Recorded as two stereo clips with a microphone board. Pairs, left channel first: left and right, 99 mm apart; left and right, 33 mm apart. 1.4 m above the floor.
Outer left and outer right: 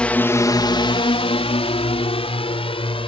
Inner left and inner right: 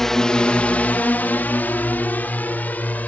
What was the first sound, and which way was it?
A drone, 10° left (ahead or behind).